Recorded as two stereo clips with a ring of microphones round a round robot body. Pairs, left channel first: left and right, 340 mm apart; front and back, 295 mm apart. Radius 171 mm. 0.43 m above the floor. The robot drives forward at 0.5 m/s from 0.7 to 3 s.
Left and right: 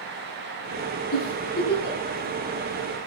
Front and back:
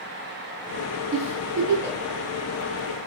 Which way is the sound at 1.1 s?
155° left.